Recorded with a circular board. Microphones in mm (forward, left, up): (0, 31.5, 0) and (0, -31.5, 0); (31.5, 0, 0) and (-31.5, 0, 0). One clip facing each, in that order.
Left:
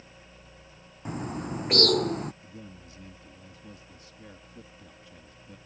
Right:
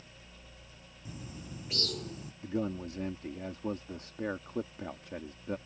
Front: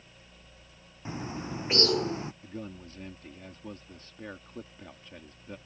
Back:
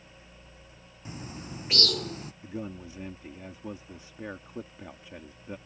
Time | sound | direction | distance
1.1 | a bird | 65° left | ?
2.4 | a man speaking | 100° right | ?